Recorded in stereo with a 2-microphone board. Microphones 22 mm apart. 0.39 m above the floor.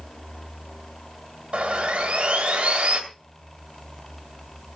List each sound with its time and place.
1.5 s sawing: 55° right (ahead or behind), 2.5 m